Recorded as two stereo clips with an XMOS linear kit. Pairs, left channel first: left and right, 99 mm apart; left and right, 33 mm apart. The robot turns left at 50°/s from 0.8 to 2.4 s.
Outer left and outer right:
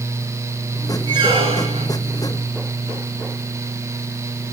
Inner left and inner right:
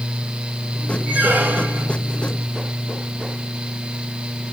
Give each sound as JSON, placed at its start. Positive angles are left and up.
{"t": 1.1, "sound": "a squeak", "azimuth_deg": -45, "distance_m": 7.0}